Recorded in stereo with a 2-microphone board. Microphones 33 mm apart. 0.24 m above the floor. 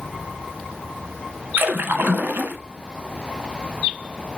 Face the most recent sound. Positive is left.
turn(degrees=-75)  # may be behind; listen again after turning